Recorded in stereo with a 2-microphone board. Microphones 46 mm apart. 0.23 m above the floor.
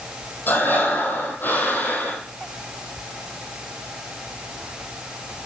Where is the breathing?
45° left (ahead or behind), 4.5 m.